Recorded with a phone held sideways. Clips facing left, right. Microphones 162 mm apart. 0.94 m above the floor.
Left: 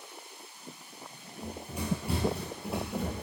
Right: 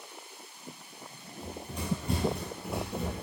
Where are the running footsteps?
10° left (ahead or behind), 1.2 m; by 3.2 s 5° right (ahead or behind), 1.0 m.